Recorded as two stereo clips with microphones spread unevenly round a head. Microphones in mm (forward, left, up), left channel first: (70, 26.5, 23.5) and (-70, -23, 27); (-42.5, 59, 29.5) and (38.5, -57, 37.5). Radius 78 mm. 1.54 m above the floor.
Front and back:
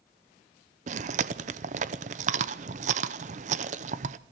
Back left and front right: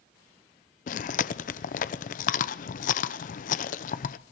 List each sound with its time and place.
0.9 s chewing: 160° left, 0.6 m